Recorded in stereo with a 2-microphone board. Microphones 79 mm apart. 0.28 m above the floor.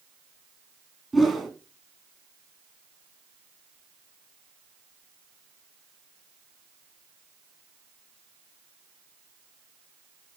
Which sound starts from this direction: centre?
A whoosh, at 1.1 s.